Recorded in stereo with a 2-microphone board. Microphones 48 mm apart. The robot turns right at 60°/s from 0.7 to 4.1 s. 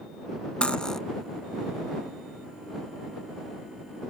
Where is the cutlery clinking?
20° left (ahead or behind); by 1.0 s 10° left (ahead or behind).